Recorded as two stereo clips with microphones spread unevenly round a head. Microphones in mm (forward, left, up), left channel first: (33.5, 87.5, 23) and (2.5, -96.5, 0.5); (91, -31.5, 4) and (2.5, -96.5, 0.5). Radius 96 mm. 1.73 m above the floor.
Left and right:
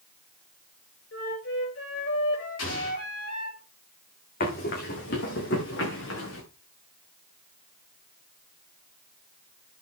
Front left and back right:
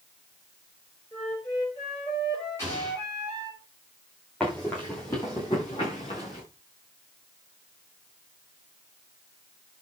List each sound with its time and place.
1.1 s a flute: 110° left, 6.5 m
2.6 s an explosion: 115° left, 5 m
4.4 s running footsteps: 120° left, 5 m; by 6.4 s 95° left, 6 m